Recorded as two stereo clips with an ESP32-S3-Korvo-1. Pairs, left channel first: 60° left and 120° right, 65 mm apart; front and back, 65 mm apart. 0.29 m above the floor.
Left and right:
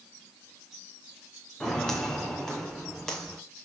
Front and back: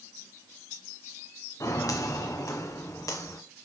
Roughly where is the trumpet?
No trumpet in this recording.